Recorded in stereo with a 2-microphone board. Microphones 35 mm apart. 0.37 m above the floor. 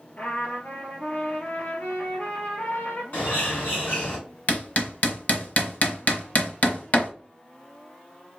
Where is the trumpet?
50° left (ahead or behind), 2 m.